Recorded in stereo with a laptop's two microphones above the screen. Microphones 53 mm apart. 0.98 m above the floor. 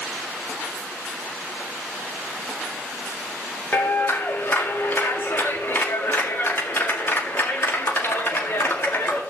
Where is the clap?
40° left (ahead or behind), 2 m.